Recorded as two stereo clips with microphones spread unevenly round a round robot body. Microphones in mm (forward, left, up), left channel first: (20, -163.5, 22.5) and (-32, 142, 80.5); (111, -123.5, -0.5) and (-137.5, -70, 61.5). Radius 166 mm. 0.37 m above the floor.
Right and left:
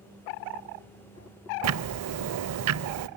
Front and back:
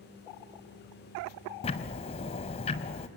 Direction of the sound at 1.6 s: 55° left.